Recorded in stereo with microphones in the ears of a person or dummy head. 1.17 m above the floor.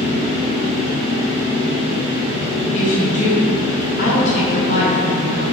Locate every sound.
0.0 s a fan: 40° right (ahead or behind), 0.8 m
2.7 s a woman speaking: 40° left (ahead or behind), 0.6 m